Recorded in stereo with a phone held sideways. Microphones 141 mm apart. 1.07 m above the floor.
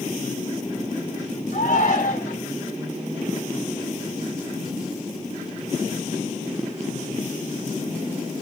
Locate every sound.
1.5 s a shout: 80° left, 3.5 m